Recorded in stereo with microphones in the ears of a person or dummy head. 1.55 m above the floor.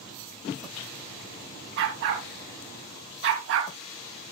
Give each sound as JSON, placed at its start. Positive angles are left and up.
{"t": 1.8, "sound": "a dog barking", "side_deg": -60, "distance_m": 3.5}